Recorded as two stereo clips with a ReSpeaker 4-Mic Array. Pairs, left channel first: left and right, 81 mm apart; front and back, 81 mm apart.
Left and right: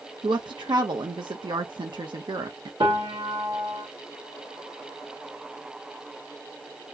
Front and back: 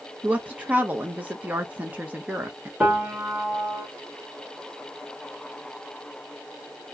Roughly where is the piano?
Right.